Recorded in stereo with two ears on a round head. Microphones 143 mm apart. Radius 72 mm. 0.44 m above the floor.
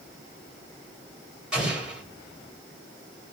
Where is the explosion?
5° right (ahead or behind), 2 m.